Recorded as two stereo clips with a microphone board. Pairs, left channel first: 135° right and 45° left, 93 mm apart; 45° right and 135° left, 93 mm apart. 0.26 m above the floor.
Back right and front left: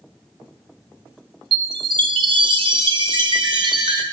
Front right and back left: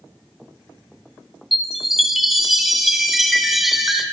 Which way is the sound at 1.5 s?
45° left.